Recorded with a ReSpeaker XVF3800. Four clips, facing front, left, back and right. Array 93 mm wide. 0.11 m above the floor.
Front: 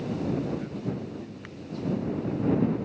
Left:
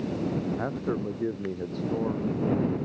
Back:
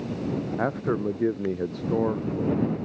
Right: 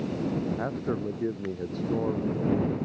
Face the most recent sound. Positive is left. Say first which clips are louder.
# even, back 8 dB
turn(degrees=180)